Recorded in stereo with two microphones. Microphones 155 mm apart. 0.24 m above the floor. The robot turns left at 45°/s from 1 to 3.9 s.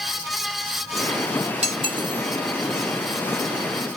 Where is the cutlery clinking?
45° right (ahead or behind), 1.3 m; by 2.2 s 20° right (ahead or behind), 1.3 m.